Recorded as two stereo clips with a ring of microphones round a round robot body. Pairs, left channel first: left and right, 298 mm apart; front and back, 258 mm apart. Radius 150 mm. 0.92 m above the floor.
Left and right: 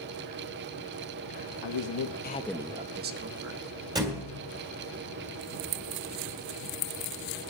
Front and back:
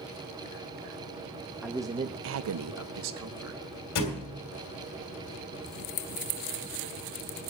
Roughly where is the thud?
Ahead.